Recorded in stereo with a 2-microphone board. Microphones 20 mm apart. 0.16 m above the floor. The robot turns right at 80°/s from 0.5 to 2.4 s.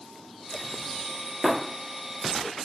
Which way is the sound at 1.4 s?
15° left (ahead or behind).